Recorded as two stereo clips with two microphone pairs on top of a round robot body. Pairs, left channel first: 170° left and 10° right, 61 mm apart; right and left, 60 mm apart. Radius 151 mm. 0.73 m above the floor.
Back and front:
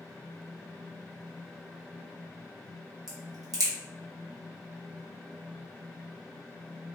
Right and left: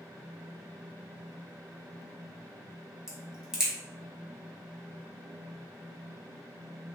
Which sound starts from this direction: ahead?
A crack, at 3.1 s.